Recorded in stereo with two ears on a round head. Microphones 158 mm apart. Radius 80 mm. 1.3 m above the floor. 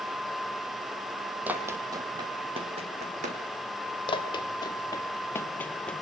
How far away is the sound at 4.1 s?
About 2 m.